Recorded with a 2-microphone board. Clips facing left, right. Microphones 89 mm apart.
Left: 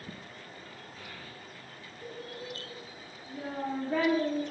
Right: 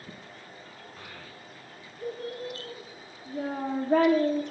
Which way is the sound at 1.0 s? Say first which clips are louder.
Right 1 dB; 65° right (ahead or behind).